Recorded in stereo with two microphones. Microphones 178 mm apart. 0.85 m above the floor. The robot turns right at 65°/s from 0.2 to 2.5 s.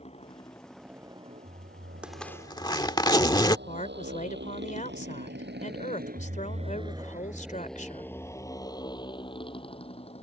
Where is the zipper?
5° right; by 3.6 s 25° left.